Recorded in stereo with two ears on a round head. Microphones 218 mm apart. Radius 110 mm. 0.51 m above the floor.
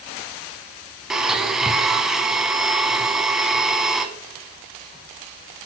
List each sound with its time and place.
1.1 s a blender: centre (ahead or behind), 0.6 m